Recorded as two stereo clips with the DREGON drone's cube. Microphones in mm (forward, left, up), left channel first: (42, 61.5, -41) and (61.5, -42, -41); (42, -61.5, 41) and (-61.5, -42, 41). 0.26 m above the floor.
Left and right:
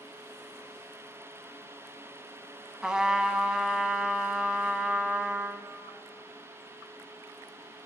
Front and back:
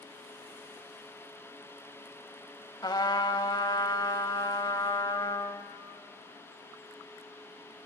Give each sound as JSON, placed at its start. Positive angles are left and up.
{"t": 2.8, "sound": "a trumpet", "azimuth_deg": 0, "distance_m": 1.2}